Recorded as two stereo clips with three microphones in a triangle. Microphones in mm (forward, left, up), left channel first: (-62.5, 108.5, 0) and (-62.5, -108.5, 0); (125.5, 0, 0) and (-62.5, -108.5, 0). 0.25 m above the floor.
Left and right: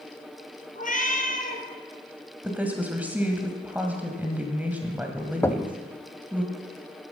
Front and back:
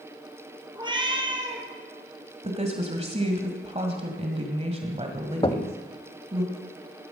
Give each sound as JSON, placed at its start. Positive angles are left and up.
{"t": 0.8, "sound": "a cat meowing", "azimuth_deg": 145, "distance_m": 1.9}
{"t": 2.4, "sound": "a woman speaking", "azimuth_deg": -165, "distance_m": 1.7}
{"t": 5.4, "sound": "knocking", "azimuth_deg": 30, "distance_m": 0.7}